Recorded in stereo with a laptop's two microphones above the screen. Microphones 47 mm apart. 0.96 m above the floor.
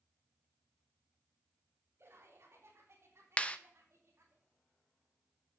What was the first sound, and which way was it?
Laughter, 60° right (ahead or behind).